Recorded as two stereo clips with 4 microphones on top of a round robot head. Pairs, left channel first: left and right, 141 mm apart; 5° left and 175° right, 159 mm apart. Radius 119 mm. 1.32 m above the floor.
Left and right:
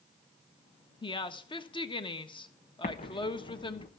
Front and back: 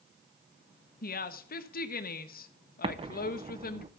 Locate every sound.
1.0 s a woman speaking: 35° left, 1.4 m
2.8 s an explosion: 130° left, 1.0 m